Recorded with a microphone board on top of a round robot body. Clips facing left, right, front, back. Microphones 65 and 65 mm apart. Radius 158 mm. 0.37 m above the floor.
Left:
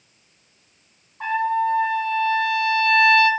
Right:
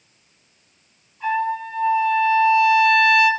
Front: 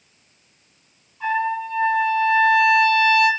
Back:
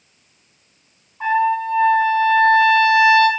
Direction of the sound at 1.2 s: 130° left.